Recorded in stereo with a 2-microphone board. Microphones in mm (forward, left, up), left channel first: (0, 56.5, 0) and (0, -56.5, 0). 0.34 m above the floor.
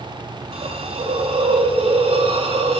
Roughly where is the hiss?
Right.